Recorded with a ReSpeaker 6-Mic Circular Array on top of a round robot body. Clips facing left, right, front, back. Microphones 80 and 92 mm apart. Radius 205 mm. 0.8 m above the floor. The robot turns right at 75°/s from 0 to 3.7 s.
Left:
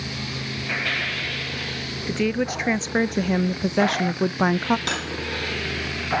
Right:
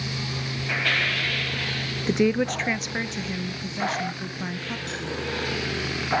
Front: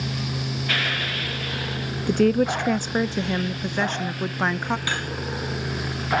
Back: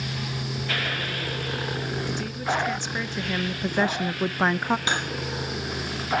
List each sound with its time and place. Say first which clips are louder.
2.1 s a woman speaking: right 2 dB, front 13 dB; 25° right, 0.5 m; by 4.8 s 95° left, 0.5 m
4.9 s cutlery clinking: left 4 dB, back 1 dB; 110° left, 1.4 m